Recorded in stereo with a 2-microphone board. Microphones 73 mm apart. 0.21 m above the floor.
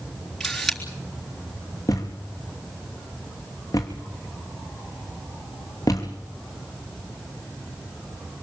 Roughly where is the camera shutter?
Centre.